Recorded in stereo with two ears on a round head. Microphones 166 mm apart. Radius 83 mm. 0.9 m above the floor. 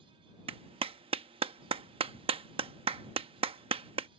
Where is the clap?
35° right (ahead or behind).